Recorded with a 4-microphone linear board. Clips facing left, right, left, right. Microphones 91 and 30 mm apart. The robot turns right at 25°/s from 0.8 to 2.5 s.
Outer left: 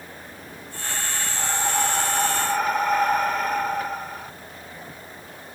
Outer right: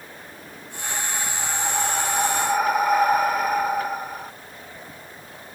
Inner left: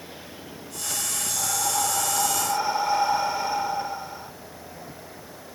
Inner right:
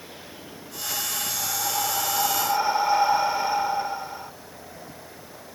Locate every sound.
1.4 s breathing: 20° left (ahead or behind); by 4.3 s 10° right (ahead or behind)